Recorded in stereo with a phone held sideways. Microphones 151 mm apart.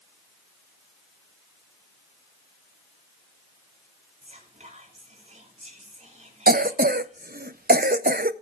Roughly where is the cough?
Right.